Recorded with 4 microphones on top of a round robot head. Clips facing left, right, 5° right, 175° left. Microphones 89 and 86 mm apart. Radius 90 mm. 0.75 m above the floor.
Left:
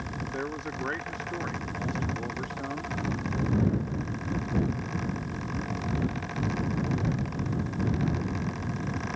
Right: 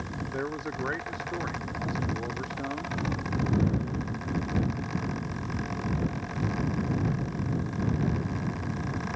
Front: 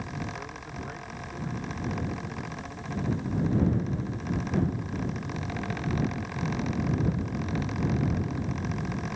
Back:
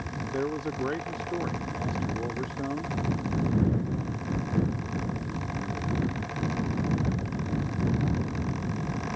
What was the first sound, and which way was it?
A man speaking, 175° right.